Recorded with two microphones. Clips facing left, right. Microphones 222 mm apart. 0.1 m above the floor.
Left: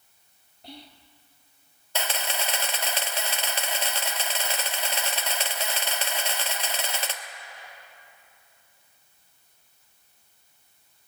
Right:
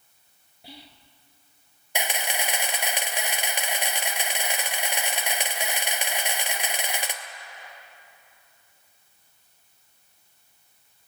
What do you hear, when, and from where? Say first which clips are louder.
0.6 s whispering: left 2 dB; 5° right (ahead or behind), 1.2 m
1.9 s a camera shutter: right 1 dB; 15° right (ahead or behind), 1.1 m